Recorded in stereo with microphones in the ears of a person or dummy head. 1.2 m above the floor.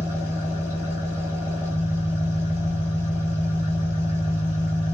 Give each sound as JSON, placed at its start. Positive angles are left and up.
{"t": 0.0, "sound": "an engine running", "side_deg": -10, "distance_m": 2.5}